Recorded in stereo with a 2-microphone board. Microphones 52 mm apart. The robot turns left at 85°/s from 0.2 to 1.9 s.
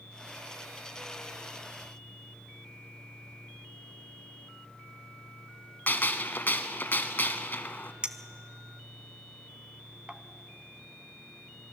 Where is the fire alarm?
No fire alarm in this recording.